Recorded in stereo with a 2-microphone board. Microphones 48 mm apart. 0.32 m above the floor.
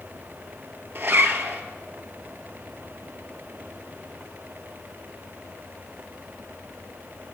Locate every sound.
0.9 s a zipper: 50° right (ahead or behind), 0.9 m